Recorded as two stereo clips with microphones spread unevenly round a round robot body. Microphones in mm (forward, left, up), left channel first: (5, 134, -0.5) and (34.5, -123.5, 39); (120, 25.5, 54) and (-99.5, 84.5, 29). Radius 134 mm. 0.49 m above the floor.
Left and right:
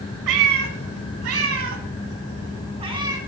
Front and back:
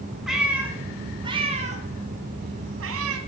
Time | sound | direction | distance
0.3 | a cat meowing | 105° right | 1.8 m